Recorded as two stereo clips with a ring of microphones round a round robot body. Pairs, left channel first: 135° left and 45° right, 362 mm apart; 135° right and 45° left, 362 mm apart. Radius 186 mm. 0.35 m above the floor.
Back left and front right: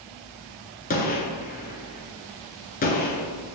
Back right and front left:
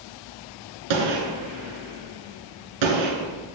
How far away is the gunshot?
About 1.3 m.